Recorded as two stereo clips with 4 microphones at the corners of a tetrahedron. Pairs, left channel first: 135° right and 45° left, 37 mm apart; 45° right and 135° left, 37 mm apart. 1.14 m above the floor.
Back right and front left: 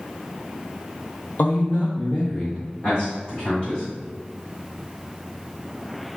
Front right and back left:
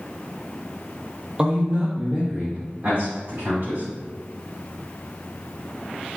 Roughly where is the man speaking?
Behind.